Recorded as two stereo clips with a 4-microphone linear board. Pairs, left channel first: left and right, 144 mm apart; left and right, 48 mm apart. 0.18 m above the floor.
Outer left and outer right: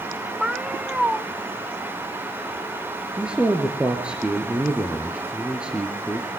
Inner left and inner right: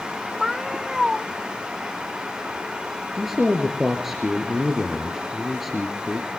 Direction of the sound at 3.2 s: 5° right (ahead or behind).